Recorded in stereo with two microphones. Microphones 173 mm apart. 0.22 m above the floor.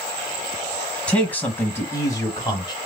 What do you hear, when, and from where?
1.1 s a man speaking: 5° left (ahead or behind), 1.2 m; by 2.8 s 25° left (ahead or behind), 1.1 m